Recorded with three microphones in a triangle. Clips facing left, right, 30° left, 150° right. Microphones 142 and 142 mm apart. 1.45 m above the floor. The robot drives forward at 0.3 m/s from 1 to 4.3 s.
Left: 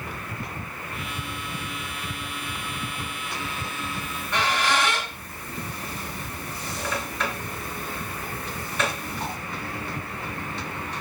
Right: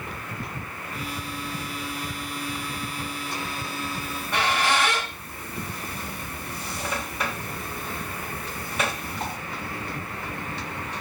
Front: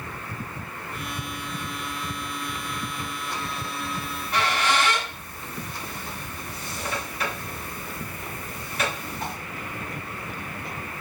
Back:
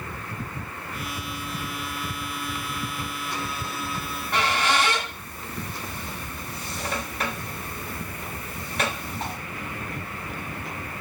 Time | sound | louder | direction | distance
4.0 | a squeak | even, even | 170° right | 3 m